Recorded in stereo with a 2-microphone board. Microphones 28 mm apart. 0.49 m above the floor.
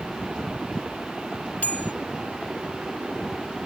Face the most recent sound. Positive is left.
turn(degrees=70)  # may be behind; listen again after turning